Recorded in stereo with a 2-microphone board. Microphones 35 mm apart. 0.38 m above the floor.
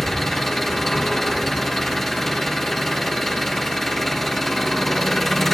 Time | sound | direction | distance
0.0 | an engine running | 5° left (ahead or behind) | 4 m